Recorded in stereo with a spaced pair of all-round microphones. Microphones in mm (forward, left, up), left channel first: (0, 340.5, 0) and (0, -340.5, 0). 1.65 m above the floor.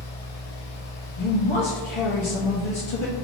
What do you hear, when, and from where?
0.0 s a fan: 60° left (ahead or behind), 0.8 m
1.2 s a man speaking: 45° left (ahead or behind), 0.7 m